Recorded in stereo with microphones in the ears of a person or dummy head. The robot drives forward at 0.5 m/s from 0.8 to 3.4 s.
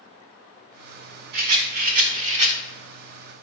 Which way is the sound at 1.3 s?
55° right (ahead or behind).